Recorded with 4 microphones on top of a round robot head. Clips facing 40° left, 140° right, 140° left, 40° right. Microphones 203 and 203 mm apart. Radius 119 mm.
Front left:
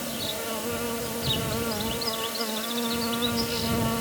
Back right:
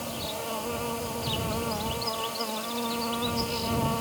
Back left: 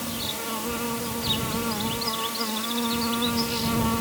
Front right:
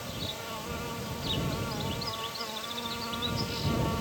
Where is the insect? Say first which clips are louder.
Front left 2 dB, back left 7 dB; 115° left.